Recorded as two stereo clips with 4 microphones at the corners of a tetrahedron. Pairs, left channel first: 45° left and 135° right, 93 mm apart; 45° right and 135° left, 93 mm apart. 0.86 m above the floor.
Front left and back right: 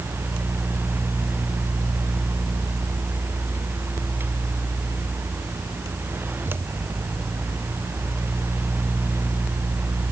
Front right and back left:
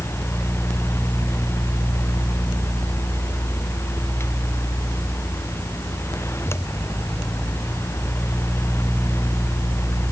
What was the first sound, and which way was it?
Only background noise.